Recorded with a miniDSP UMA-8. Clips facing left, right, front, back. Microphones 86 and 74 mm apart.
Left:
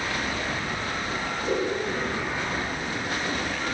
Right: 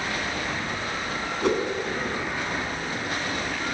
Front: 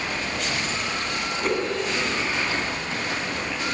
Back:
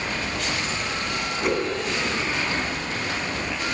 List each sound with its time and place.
1.4 s a whoosh: 95° right, 2.5 m